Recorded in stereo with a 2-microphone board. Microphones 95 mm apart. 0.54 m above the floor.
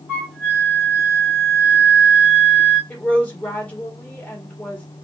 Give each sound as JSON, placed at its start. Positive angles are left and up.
{"t": 0.1, "sound": "a flute", "side_deg": -15, "distance_m": 1.9}
{"t": 2.9, "sound": "a woman speaking", "side_deg": 15, "distance_m": 1.7}